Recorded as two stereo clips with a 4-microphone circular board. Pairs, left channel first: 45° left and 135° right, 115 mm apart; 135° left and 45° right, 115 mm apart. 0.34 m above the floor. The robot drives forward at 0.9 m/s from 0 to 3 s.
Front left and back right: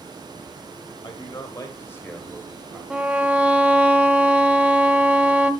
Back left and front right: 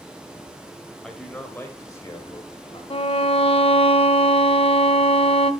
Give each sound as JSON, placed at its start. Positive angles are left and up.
{"t": 1.0, "sound": "a man speaking", "azimuth_deg": 50, "distance_m": 1.6}
{"t": 2.9, "sound": "a violin", "azimuth_deg": 140, "distance_m": 0.7}